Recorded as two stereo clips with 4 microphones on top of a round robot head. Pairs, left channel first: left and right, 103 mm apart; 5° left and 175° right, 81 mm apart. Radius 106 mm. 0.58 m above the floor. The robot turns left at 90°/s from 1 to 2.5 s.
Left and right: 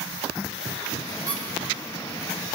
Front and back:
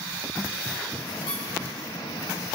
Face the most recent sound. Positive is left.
turn(degrees=-145)